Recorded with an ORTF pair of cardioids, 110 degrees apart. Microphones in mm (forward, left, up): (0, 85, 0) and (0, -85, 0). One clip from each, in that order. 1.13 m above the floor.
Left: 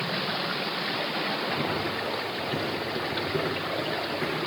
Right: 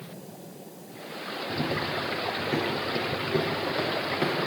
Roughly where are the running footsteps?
Ahead.